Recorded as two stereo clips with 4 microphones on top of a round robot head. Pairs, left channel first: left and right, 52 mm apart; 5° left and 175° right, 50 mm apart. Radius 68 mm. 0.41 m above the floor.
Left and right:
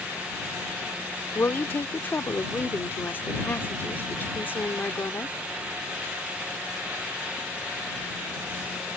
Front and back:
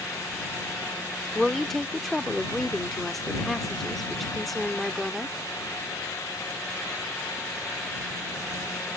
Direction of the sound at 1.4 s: 90° left.